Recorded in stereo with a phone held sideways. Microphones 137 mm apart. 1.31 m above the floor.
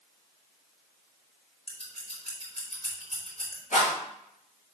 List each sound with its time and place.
1.7 s scissors: 50° left (ahead or behind), 3.5 m
3.7 s a rattle: 70° left (ahead or behind), 4.5 m